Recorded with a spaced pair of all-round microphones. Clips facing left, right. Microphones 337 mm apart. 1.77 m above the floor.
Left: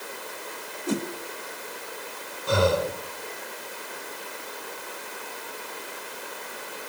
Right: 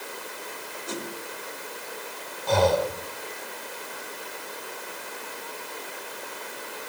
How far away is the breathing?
About 1.5 m.